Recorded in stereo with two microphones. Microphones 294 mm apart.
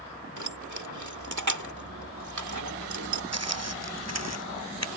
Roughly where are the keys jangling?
Right.